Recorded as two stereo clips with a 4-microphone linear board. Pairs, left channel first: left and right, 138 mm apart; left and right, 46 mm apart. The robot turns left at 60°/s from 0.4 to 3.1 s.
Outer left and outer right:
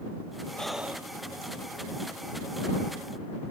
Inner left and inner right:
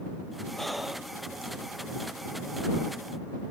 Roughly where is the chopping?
No chopping in this recording.